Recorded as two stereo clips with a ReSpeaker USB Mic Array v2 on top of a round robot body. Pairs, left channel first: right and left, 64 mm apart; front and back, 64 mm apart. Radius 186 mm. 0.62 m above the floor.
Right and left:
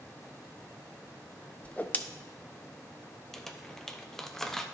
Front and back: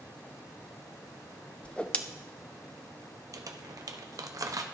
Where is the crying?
No crying in this recording.